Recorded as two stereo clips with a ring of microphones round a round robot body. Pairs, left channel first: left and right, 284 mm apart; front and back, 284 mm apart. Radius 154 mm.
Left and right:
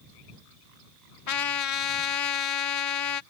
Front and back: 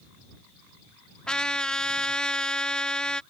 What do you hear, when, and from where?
1.3 s a trumpet: 85° left